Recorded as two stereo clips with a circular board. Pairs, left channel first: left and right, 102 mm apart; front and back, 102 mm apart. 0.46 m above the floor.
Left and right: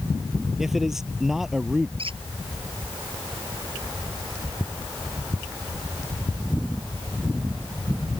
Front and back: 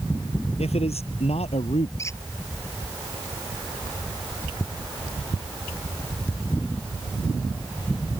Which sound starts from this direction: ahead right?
A squeak, at 2.0 s.